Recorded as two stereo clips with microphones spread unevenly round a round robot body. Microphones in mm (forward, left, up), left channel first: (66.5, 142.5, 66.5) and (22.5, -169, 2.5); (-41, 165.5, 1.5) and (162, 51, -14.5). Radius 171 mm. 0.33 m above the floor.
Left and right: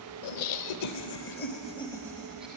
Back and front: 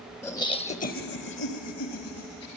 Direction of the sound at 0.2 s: 70° left.